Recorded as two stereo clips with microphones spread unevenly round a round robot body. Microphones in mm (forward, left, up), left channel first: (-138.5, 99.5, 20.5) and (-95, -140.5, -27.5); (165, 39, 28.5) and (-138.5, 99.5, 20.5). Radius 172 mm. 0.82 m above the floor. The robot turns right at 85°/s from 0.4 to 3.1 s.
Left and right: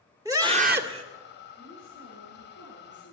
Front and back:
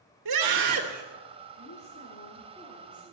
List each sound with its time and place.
0.2 s a scream: 155° right, 2 m; by 1.0 s 100° right, 2 m
1.6 s a woman speaking: 5° left, 10 m; by 3.1 s 135° left, 10 m